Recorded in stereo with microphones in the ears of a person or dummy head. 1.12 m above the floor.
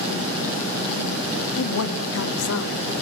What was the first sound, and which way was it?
A woman speaking, 80° left.